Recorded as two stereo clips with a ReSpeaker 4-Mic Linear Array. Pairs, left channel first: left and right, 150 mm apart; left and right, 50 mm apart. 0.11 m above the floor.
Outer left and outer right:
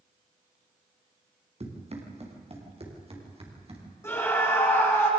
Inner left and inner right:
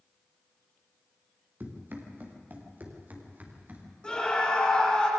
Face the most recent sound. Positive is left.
turn(degrees=15)  # may be behind; listen again after turning